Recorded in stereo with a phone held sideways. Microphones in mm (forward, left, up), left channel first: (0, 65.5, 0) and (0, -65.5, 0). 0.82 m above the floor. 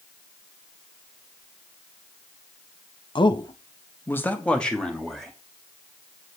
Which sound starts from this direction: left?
A man speaking, at 3.1 s.